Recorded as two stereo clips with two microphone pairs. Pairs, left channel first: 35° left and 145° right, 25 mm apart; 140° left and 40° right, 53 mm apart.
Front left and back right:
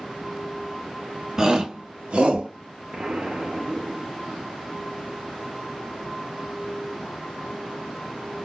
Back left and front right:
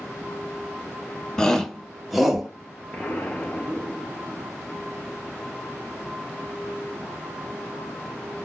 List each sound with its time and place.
1.4 s a shout: 160° right, 0.6 m; by 2.5 s 125° right, 1.0 m
2.9 s an explosion: 170° right, 0.6 m